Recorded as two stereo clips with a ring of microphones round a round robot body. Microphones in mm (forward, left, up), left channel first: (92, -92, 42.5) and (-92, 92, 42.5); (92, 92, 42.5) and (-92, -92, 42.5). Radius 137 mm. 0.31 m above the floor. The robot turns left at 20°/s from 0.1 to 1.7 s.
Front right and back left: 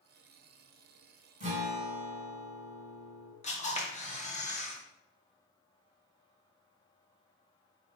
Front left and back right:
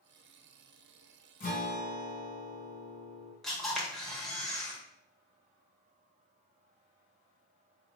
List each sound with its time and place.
1.4 s a guitar: 90° left, 1.8 m; by 3.3 s 85° left, 1.8 m
3.4 s a camera shutter: 40° right, 1.2 m